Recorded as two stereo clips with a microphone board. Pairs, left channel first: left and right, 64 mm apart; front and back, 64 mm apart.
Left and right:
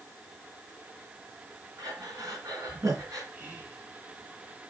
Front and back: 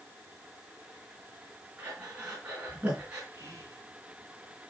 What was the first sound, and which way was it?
Breathing, 115° right.